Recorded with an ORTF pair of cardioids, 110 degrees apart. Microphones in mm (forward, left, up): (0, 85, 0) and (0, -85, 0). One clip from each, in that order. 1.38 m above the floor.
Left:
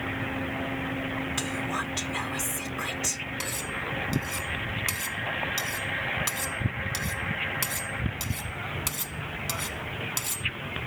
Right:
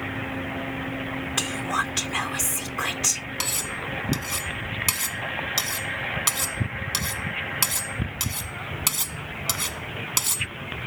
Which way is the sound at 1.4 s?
35° right.